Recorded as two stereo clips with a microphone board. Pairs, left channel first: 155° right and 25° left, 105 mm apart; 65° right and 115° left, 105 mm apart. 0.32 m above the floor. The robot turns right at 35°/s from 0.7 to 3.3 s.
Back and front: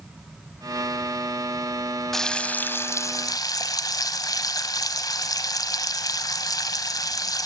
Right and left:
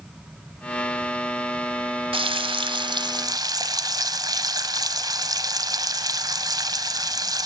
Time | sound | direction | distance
2.1 | frying | 115° left | 1.3 m